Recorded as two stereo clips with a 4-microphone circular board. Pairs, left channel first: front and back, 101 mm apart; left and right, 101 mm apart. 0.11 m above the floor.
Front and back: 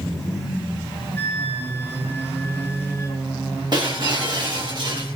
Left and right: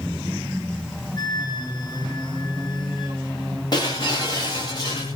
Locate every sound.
1.2 s a flute: 65° left, 2 m
3.7 s breaking glass: 135° left, 9.5 m